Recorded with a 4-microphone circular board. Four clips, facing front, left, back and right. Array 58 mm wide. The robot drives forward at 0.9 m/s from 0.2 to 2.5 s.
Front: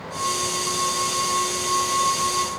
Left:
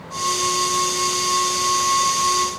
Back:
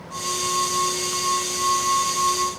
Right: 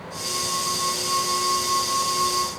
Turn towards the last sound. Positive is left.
No sound to turn to.